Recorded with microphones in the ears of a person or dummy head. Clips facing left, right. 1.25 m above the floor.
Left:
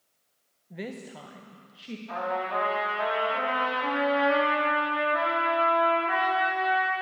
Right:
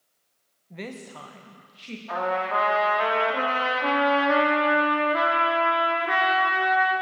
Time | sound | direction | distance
0.7 | a woman speaking | 5° left (ahead or behind) | 0.9 m
2.1 | a trumpet | 60° right (ahead or behind) | 2.5 m